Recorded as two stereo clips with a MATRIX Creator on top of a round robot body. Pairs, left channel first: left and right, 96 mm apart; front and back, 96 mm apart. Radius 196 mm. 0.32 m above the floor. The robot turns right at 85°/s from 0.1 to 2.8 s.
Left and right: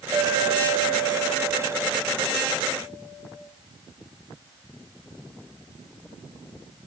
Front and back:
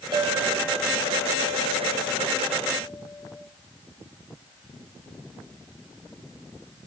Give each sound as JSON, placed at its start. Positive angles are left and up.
{"t": 0.1, "sound": "a clink", "azimuth_deg": -145, "distance_m": 2.5}